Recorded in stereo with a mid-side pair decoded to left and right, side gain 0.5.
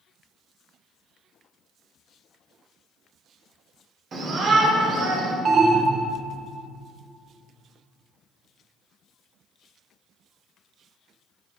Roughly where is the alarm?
Ahead right.